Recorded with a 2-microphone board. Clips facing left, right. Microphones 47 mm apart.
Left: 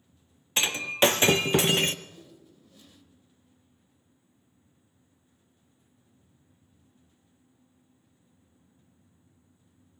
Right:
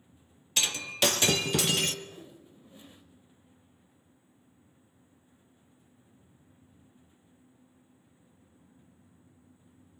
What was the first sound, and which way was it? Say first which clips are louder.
Breaking glass: left 5 dB; 30° left (ahead or behind).